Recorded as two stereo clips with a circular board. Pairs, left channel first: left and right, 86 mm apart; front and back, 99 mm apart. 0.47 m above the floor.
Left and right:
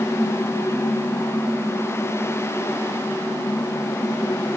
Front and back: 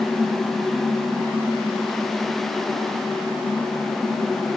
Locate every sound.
Only background noise.